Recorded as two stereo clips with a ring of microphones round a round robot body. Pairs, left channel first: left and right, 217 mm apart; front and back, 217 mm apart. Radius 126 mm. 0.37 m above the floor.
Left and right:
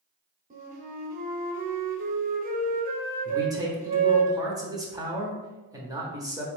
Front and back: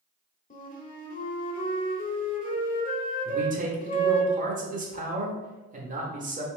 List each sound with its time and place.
0.5 s a flute: 45° right, 1.0 m
3.2 s a man speaking: 155° right, 1.1 m